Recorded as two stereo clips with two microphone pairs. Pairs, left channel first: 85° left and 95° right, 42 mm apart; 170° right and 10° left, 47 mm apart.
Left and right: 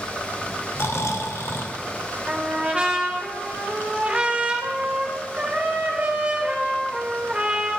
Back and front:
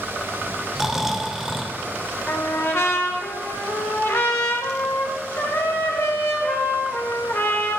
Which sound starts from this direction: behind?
A trumpet, at 2.3 s.